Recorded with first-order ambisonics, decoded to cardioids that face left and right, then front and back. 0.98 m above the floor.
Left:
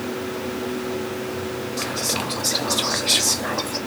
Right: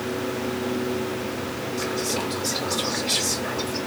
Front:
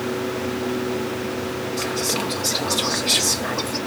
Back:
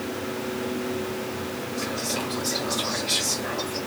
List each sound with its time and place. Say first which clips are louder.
1.8 s whispering: left 2 dB, front 5 dB; 50° left, 1.7 m